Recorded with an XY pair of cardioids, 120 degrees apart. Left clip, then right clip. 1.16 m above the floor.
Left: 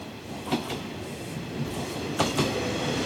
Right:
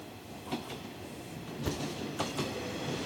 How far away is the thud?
About 1.8 m.